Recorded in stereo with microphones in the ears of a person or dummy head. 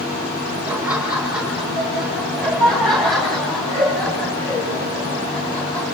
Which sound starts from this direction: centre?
Laughter, at 0.7 s.